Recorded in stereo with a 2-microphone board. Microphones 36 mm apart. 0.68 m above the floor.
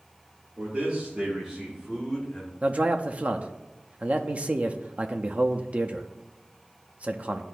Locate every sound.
0.6 s a man speaking: 40° right (ahead or behind), 1.8 m; by 2.5 s 20° left (ahead or behind), 1.8 m
2.6 s a man speaking: 35° right (ahead or behind), 0.5 m